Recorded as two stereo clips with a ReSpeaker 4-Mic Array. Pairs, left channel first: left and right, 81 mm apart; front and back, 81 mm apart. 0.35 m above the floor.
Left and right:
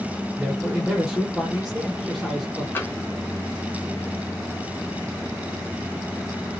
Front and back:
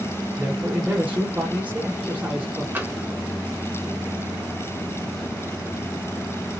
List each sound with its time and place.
0.4 s a man speaking: 165° right, 1.0 m
2.8 s tapping: 135° left, 0.7 m